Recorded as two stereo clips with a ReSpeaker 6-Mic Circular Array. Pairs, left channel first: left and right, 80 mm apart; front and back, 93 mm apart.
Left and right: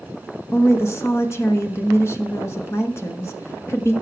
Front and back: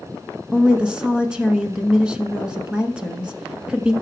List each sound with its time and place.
0.5 s a woman speaking: 105° left, 1.2 m